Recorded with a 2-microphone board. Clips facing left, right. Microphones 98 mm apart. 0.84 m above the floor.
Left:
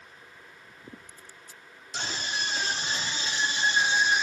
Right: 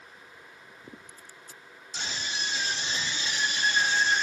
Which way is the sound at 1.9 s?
60° left (ahead or behind).